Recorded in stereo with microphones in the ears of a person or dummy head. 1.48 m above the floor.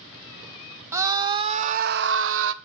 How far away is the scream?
About 1.2 m.